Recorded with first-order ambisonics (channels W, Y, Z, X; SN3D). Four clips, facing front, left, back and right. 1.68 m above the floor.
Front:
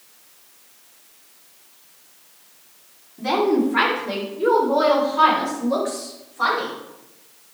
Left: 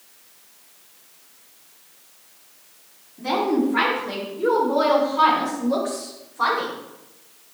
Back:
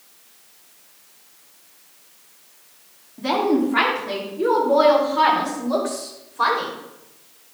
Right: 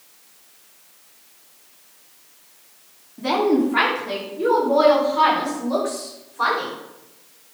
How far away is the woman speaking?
About 4.5 m.